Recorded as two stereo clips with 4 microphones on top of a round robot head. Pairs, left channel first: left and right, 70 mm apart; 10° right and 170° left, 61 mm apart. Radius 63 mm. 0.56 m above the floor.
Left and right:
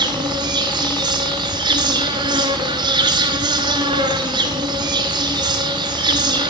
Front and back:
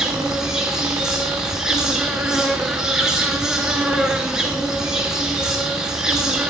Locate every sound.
0.0 s an insect: 105° right, 0.9 m